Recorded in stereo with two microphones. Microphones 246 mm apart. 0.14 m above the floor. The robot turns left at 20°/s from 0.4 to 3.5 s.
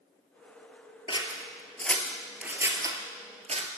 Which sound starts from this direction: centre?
Scissors, at 1.1 s.